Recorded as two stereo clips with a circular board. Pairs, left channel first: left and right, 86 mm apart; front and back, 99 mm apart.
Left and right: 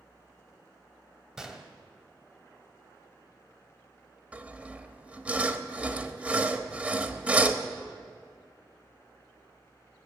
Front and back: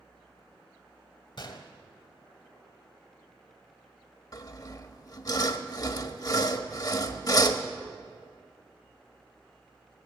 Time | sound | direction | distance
1.4 | a gunshot | 5° right | 1.4 m
4.3 | sawing | 25° right | 0.9 m